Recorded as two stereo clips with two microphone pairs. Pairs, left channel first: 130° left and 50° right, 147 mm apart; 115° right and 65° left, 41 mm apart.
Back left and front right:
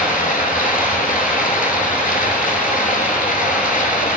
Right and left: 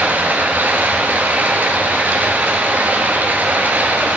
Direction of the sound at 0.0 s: 110° left.